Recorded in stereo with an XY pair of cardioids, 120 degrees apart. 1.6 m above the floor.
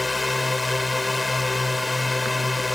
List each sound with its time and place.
0.0 s a drone: 10° left